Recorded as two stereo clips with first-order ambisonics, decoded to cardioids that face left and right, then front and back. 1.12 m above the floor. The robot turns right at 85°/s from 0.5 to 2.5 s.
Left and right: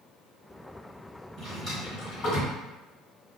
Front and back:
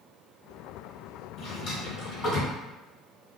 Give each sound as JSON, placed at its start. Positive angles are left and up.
{"t": 1.4, "sound": "a drawer", "azimuth_deg": -25, "distance_m": 1.6}